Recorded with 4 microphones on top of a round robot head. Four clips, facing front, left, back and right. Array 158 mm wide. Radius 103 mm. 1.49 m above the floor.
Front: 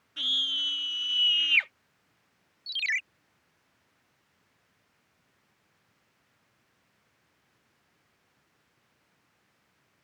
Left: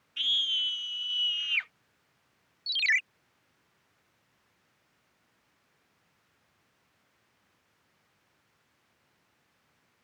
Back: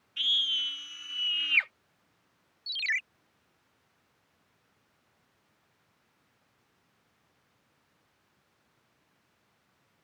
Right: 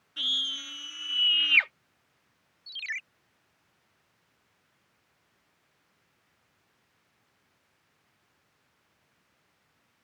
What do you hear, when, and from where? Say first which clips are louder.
0.2 s a scream: left 2 dB, even; 40° right; by 1.7 s 80° right
2.7 s a ringtone: left 9 dB, front 1 dB; 80° left